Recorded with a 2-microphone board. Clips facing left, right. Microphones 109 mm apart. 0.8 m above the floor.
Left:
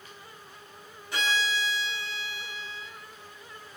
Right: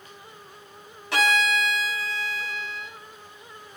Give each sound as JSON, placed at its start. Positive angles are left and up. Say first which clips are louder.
{"t": 1.1, "sound": "a violin", "louder": "right 6 dB", "side_deg": -85, "distance_m": 3.5}